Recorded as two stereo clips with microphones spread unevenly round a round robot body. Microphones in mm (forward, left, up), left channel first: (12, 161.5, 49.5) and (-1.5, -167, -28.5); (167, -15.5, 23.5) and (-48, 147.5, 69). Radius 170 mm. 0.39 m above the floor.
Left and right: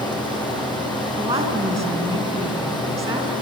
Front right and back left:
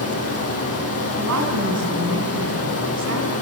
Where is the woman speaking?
170° right, 3.5 m.